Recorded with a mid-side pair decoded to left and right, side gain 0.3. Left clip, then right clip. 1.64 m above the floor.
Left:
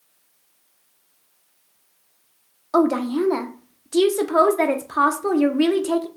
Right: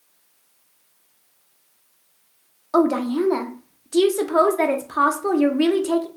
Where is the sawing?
No sawing in this recording.